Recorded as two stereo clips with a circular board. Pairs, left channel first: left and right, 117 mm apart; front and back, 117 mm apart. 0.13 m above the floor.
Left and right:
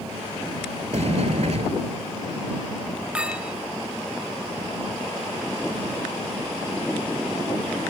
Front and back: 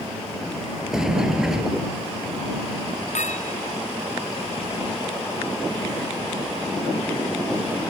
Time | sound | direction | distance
0.9 | a sliding door | 95° right | ?
3.1 | a clink | 10° right | ?